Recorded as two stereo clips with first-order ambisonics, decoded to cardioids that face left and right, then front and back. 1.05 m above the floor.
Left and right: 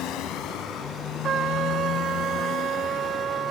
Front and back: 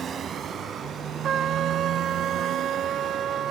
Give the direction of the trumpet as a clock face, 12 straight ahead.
5 o'clock.